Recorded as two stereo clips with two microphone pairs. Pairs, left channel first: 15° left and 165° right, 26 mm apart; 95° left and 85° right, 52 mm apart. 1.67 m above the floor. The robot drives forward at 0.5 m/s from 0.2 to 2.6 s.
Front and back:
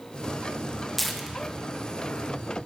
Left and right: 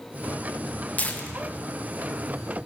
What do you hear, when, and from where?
1.0 s tearing paper: 95° left, 1.0 m; by 2.4 s 145° left, 1.2 m